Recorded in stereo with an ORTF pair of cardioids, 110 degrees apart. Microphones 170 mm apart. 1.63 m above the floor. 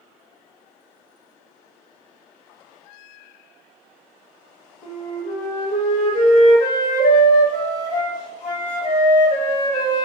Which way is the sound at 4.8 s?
45° left.